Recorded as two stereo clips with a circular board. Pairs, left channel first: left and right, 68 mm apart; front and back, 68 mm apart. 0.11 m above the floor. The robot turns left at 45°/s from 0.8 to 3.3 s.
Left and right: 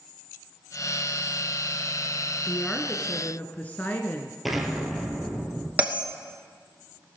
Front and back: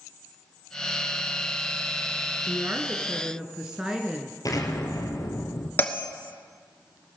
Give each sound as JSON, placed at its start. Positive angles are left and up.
{"t": 2.5, "sound": "a woman speaking", "azimuth_deg": 150, "distance_m": 1.1}
{"t": 4.5, "sound": "an explosion", "azimuth_deg": 0, "distance_m": 1.5}
{"t": 5.8, "sound": "a bell", "azimuth_deg": -40, "distance_m": 1.2}